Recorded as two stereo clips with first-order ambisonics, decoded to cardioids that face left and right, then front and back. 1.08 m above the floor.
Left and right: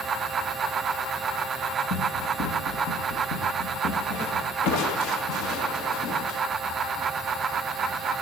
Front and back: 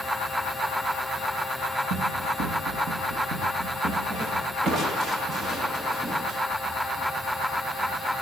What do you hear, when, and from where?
1.9 s running footsteps: 140° left, 7.5 m; by 5.5 s 125° left, 11.5 m
4.6 s crushing: 115° left, 2.5 m